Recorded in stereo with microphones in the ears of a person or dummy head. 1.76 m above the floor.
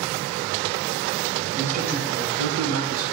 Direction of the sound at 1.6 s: 45° right (ahead or behind).